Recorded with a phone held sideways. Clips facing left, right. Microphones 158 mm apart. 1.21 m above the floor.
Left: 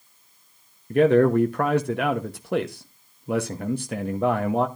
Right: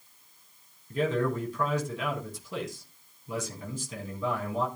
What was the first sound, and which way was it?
A man speaking, 65° left (ahead or behind).